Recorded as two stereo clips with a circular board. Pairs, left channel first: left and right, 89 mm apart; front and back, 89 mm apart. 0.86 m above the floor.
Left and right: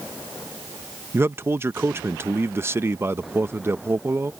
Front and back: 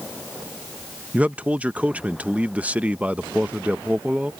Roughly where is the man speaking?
Behind right.